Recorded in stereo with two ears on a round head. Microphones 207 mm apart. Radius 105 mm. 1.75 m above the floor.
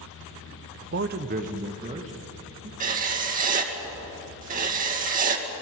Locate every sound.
0.9 s a man speaking: 50° right (ahead or behind), 0.7 m; by 2.7 s 30° right (ahead or behind), 3.5 m
2.8 s writing: 40° right (ahead or behind), 2.0 m